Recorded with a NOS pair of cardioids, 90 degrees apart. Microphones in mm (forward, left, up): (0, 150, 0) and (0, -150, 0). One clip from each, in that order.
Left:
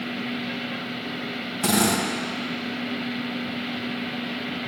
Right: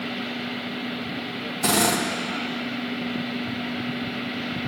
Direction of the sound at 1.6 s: 10° left.